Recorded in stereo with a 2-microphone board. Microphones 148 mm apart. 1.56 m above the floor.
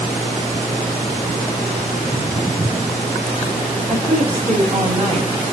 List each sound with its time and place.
1.9 s footsteps: 20° right (ahead or behind), 4.5 m; by 3.0 s 15° right (ahead or behind), 5.5 m
3.9 s a woman speaking: 45° right (ahead or behind), 7 m